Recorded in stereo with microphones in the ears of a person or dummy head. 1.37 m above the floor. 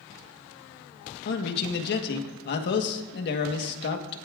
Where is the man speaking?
65° left (ahead or behind), 1.3 m.